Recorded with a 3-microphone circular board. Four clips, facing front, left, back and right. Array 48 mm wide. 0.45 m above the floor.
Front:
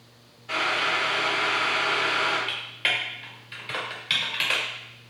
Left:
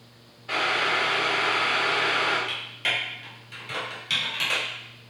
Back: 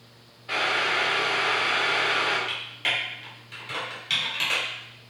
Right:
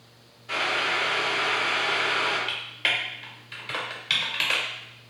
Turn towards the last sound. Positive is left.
turn(degrees=-55)